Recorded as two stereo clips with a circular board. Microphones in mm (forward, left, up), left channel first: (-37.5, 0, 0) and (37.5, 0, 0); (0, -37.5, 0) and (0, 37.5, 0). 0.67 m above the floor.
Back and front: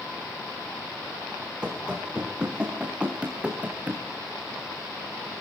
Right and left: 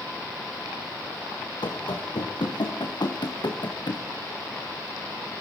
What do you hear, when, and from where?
1.6 s running footsteps: 80° right, 5 m; by 4.0 s 75° right, 3.5 m